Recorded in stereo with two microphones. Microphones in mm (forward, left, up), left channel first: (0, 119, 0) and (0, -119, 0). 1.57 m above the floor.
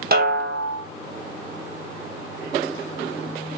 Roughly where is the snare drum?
Right.